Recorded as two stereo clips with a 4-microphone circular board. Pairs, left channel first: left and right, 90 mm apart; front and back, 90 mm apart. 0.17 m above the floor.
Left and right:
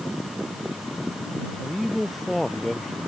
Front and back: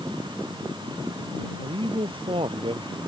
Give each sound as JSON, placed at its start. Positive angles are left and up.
{"t": 1.6, "sound": "a man speaking", "azimuth_deg": 180}